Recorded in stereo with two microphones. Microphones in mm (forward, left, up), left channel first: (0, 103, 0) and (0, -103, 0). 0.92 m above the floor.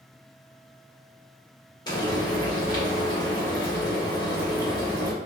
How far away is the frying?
About 1.2 m.